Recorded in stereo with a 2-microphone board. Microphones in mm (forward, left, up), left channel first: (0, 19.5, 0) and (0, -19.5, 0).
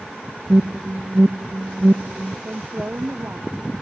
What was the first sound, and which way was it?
An alarm, 70° right (ahead or behind).